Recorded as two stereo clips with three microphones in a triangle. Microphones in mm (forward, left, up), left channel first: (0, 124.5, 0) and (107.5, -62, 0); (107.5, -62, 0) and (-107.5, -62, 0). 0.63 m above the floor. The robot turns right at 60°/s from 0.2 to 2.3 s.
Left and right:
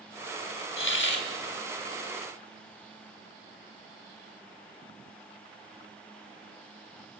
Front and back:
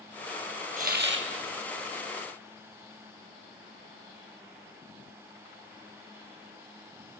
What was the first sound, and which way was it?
A hiss, 130° left.